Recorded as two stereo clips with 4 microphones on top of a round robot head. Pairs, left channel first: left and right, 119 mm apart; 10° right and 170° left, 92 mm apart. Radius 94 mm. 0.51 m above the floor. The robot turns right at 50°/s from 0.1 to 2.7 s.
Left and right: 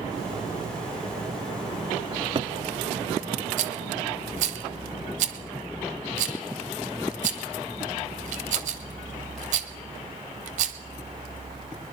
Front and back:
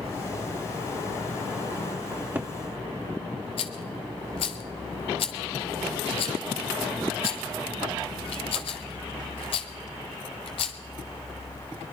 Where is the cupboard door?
135° right, 0.7 m; by 2.5 s 115° right, 0.7 m.